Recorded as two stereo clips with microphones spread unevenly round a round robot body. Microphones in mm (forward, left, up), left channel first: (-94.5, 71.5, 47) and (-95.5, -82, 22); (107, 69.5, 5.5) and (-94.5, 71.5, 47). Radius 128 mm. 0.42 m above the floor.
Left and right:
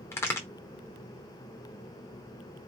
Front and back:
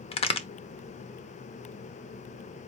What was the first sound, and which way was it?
A crack, 10° left.